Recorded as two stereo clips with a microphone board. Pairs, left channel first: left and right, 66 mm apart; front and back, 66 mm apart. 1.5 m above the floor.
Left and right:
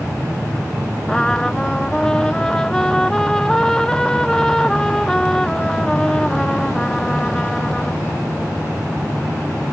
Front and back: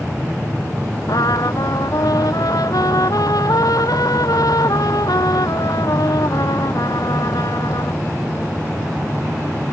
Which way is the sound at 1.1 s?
10° left.